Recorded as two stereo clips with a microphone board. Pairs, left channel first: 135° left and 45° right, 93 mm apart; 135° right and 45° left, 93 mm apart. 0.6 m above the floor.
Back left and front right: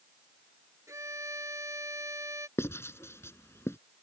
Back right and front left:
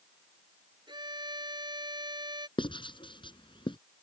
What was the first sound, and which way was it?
A violin, 10° left.